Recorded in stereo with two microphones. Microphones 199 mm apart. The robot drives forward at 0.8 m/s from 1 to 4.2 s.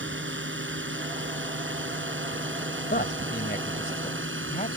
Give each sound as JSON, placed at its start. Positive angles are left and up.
{"t": 0.0, "sound": "a drone", "side_deg": -65}
{"t": 2.9, "sound": "a man speaking", "side_deg": 50}